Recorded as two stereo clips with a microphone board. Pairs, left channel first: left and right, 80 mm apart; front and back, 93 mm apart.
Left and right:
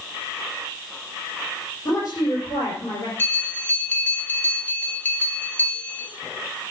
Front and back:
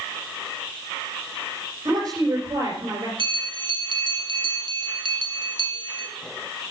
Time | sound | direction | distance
1.9 | a woman speaking | 130° left | 5 m
3.2 | a bell | 155° left | 1.6 m